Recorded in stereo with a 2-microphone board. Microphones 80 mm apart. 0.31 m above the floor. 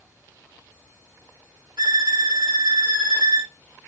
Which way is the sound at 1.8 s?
75° right (ahead or behind).